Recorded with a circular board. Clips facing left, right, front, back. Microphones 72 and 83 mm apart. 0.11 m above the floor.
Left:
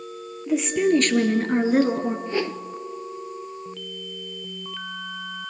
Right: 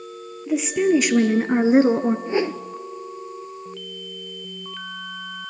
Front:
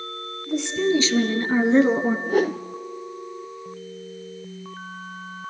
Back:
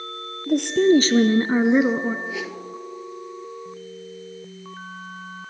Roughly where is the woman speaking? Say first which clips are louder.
Right 1 dB, back 6 dB; behind.